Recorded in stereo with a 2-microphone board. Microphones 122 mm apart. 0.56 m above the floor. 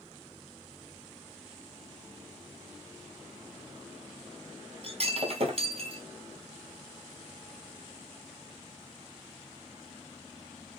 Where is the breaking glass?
50° right (ahead or behind), 0.9 m.